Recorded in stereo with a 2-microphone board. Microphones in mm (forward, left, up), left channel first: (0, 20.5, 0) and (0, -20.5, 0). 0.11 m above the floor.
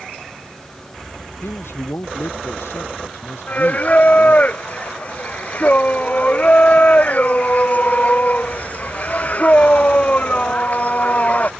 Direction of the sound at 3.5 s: 40° left (ahead or behind).